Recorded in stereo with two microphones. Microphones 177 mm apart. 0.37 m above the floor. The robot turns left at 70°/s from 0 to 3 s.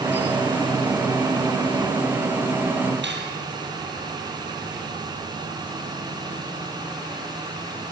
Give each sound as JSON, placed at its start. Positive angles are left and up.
{"t": 3.0, "sound": "cutlery clinking", "side_deg": -85, "distance_m": 6.5}